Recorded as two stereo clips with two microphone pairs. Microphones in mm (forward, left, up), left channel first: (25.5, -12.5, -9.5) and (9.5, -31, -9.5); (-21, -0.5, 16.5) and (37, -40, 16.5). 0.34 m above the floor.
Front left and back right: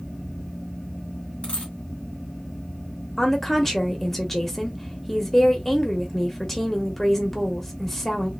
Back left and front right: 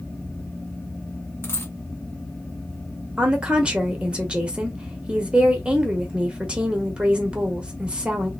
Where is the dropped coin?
90° left, 1.4 m.